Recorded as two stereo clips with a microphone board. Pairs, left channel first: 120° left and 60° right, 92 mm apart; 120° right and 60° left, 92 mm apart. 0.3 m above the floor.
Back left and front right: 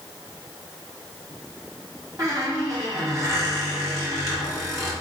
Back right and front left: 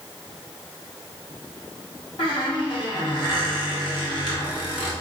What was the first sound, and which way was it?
A squeak, 110° right.